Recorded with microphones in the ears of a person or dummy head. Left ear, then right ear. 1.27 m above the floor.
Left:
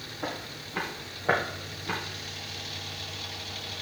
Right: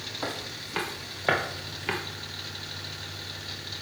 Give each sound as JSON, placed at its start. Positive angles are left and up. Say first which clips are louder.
{"t": 0.2, "sound": "footsteps", "louder": "left 1 dB", "side_deg": -55, "distance_m": 2.0}